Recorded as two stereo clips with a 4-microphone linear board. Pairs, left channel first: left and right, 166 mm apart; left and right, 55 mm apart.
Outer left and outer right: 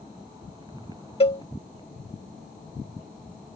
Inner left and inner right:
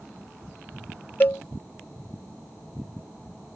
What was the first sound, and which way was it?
A cowbell, 35° left (ahead or behind).